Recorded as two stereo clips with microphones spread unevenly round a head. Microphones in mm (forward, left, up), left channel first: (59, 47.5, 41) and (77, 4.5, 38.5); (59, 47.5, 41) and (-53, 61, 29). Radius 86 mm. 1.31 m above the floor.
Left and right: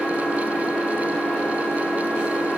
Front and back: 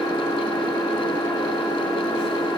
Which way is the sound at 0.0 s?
45° left.